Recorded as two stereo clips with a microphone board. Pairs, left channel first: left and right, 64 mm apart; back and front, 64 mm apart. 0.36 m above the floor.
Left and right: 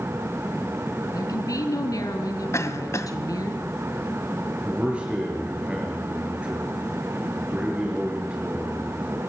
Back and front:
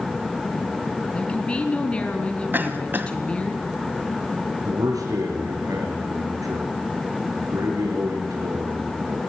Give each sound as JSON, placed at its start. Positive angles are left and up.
{"t": 1.1, "sound": "a woman speaking", "azimuth_deg": 110, "distance_m": 4.0}
{"t": 2.5, "sound": "a cough", "azimuth_deg": 55, "distance_m": 2.0}
{"t": 4.7, "sound": "a man speaking", "azimuth_deg": -15, "distance_m": 7.0}